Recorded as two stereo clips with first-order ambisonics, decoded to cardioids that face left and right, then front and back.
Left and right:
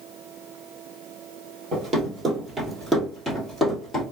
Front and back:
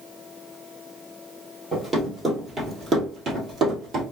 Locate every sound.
1.7 s running footsteps: 100° right, 1.7 m; by 4.0 s 155° left, 1.9 m